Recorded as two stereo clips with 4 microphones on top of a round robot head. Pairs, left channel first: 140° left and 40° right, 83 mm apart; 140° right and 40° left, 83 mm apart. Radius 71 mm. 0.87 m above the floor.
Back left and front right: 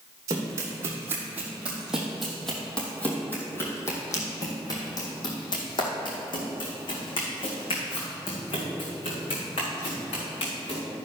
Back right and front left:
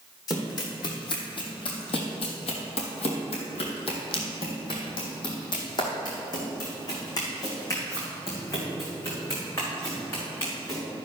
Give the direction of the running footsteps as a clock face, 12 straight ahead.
3 o'clock.